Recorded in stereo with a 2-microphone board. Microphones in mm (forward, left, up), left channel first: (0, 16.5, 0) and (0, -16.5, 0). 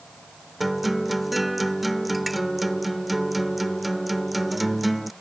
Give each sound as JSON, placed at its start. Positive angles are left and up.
{"t": 0.6, "sound": "a guitar", "side_deg": 0}